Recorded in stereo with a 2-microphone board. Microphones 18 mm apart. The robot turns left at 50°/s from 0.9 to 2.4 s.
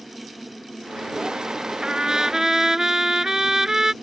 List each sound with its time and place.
1.8 s a trumpet: 60° right (ahead or behind); by 3.9 s 35° right (ahead or behind)